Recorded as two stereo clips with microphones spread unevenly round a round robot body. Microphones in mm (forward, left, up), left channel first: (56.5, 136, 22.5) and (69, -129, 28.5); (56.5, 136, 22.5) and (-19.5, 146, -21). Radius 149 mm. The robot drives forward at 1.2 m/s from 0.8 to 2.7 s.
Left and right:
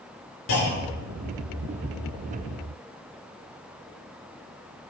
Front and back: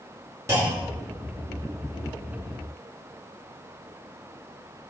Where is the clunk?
120° left, 6.5 m; by 1.2 s 125° left, 7 m.